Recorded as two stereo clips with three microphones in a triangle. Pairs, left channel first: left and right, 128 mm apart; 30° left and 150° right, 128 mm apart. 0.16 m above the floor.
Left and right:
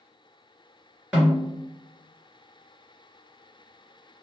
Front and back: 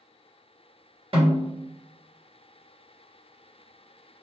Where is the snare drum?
175° right, 2.0 m.